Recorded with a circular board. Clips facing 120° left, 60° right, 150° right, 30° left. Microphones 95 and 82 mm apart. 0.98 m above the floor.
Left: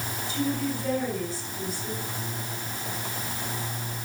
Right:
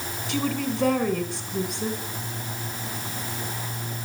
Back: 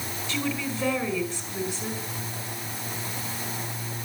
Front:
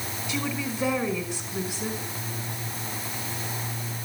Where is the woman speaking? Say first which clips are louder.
Right 2 dB, back 1 dB; 50° right, 5.5 m.